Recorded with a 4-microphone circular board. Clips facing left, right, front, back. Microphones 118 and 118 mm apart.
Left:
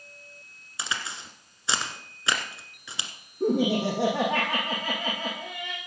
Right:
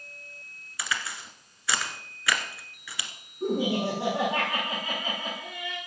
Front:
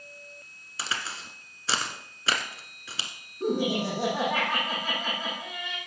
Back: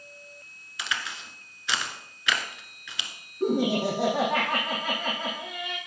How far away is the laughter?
About 6 m.